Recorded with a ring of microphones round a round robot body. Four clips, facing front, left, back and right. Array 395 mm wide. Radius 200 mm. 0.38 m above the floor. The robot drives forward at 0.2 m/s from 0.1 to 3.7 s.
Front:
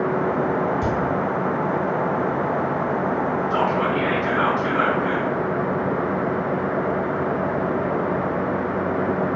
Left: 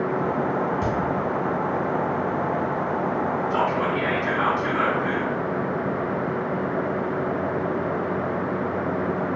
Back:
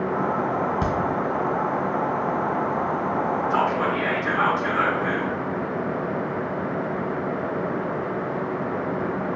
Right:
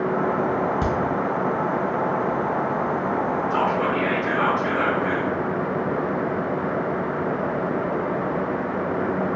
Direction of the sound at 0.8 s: 130° right.